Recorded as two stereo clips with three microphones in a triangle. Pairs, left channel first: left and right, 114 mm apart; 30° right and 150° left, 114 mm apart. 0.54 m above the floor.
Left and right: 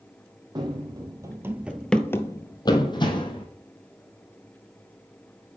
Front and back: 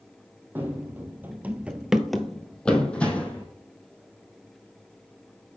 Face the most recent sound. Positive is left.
turn(degrees=50)